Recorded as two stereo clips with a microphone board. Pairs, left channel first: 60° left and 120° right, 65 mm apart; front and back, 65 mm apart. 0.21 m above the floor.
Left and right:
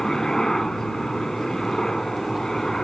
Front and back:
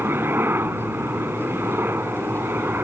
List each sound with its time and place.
0.0 s a helicopter: 140° left